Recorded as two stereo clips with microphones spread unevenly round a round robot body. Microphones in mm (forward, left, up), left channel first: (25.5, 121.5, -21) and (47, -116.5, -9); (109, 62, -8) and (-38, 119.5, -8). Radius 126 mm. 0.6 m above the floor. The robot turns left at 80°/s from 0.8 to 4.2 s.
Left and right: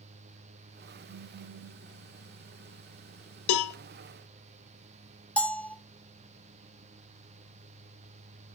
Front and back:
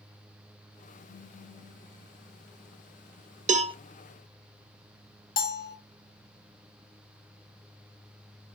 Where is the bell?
10° left, 0.8 m.